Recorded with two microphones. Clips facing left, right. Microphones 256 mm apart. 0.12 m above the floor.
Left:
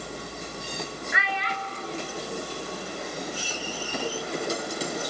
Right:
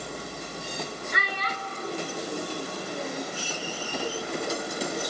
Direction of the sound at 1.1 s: 40° right (ahead or behind).